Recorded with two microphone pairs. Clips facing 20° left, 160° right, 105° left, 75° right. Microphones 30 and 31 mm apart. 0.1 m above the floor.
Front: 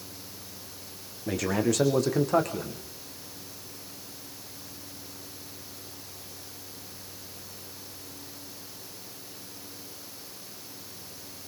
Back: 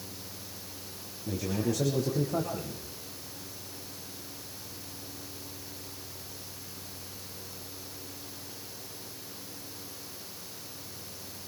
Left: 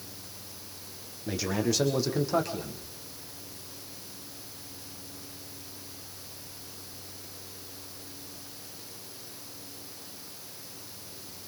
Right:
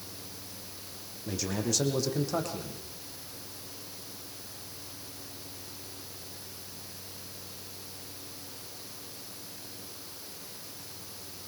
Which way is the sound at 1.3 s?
35° left.